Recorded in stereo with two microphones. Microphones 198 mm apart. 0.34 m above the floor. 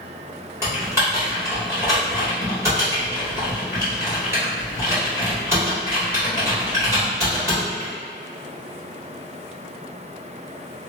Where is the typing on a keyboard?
15° right (ahead or behind), 1.4 m.